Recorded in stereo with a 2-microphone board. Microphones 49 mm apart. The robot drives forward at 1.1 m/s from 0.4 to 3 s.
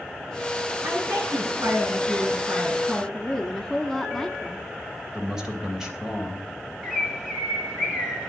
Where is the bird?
15° right (ahead or behind), 2.5 m.